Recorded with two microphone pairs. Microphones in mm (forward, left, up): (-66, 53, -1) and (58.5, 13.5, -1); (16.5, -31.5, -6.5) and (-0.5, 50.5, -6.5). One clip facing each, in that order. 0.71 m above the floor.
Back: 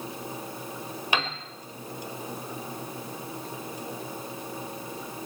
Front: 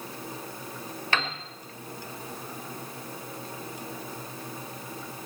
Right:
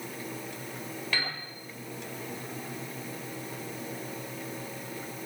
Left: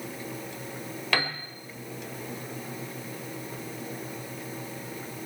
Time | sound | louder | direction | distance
1.1 | a piano | back 1 dB, left 6 dB | 90° left | 1.6 m